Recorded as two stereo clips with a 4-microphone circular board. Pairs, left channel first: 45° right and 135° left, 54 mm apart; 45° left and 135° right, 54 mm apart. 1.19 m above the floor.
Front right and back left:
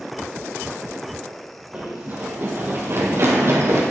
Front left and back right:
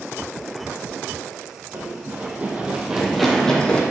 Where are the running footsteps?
160° right, 2.5 m; by 3.8 s 110° left, 2 m.